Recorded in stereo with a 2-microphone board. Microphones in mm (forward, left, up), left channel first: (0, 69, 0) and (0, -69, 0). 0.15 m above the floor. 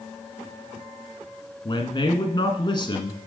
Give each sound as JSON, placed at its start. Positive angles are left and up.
{"t": 1.6, "sound": "a man speaking", "side_deg": 35, "distance_m": 1.3}